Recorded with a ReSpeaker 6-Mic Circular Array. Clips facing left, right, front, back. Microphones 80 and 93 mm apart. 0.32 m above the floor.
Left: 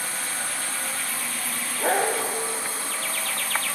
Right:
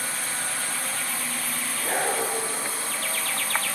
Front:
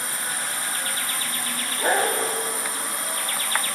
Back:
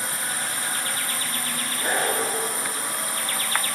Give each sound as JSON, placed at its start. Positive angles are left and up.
{"t": 1.8, "sound": "a dog barking", "azimuth_deg": 60, "distance_m": 8.5}